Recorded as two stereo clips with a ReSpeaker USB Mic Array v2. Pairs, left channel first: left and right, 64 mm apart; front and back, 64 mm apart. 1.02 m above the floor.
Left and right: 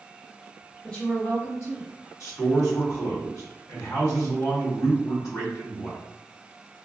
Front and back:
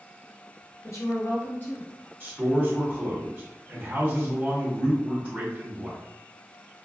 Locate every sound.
0.8 s a woman speaking: 25° left, 1.0 m; by 1.9 s 60° left, 1.1 m
2.2 s a man speaking: 125° left, 1.7 m